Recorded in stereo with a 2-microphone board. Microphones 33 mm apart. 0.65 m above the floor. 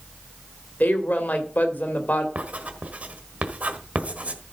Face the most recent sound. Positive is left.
turn(degrees=-50)  # may be behind; listen again after turning